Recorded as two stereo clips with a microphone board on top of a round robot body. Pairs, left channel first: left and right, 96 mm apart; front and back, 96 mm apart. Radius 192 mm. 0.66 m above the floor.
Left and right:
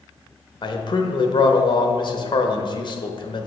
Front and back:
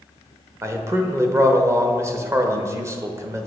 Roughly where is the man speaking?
Behind left.